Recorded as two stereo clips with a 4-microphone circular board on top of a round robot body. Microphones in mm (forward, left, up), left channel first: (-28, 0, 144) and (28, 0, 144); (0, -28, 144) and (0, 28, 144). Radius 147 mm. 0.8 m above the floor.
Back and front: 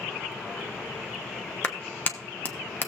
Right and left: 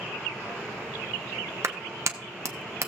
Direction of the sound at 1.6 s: 125° left.